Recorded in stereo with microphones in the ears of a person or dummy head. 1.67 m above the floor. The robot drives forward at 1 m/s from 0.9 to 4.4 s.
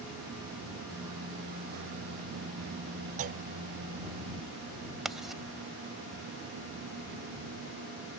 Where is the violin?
I don't hear a violin.